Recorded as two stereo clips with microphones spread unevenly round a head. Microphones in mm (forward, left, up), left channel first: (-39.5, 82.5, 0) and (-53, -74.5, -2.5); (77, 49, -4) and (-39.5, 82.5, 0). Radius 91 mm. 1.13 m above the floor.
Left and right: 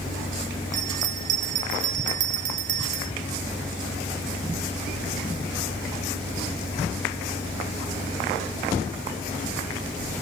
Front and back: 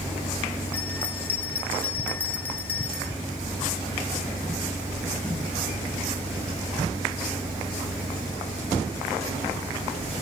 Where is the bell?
90° right.